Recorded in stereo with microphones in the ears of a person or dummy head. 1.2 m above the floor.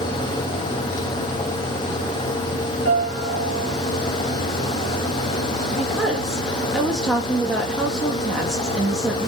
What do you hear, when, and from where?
2.9 s a piano: 85° left, 5 m
5.7 s a woman speaking: centre (ahead or behind), 2 m